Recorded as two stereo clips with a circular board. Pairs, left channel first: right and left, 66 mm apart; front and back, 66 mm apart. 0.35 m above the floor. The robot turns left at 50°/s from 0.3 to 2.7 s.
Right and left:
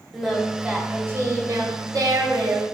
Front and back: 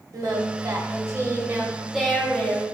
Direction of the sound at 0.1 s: 175° left.